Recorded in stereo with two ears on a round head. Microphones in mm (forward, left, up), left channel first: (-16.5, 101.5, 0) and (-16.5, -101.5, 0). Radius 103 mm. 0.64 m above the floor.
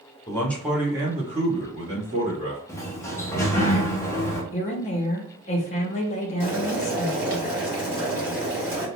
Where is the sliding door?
15° left (ahead or behind), 0.6 m.